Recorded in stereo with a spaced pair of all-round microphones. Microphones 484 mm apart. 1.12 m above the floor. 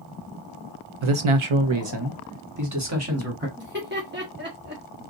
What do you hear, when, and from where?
1.0 s a man speaking: 75° right (ahead or behind), 0.8 m; by 3.5 s 25° right (ahead or behind), 2 m
3.6 s laughter: 20° right (ahead or behind), 1.5 m